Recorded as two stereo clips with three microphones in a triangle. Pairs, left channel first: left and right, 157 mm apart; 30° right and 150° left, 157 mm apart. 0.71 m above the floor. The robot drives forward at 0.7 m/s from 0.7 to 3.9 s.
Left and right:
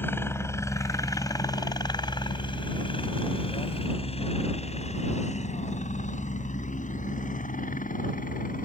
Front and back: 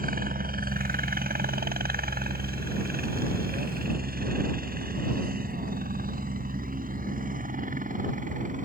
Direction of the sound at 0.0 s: 165° left.